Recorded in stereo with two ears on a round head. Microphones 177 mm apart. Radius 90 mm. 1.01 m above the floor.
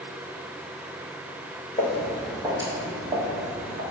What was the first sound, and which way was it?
Footsteps, 15° left (ahead or behind).